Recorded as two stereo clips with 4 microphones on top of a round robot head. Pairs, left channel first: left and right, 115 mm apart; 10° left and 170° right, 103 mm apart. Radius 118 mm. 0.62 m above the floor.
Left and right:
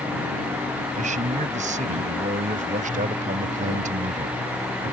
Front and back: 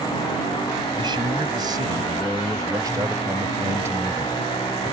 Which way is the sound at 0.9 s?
115° right.